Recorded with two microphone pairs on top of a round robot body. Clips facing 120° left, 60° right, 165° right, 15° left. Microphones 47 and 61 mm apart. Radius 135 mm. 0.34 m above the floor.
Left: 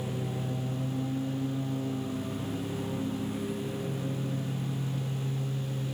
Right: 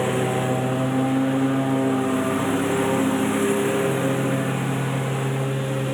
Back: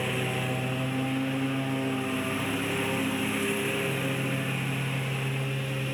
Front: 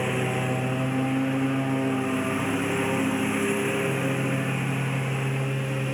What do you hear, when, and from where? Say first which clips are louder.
0.0 s a lawn mower: right 13 dB, front 4 dB; 55° right